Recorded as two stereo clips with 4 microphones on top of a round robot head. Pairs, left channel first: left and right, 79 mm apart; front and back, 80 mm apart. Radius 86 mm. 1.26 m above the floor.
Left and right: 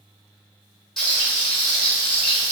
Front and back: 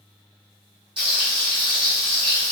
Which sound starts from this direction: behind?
Frying, at 1.0 s.